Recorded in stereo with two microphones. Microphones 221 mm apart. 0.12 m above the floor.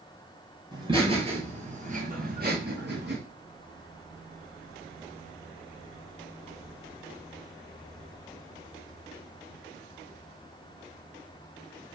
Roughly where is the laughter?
Centre.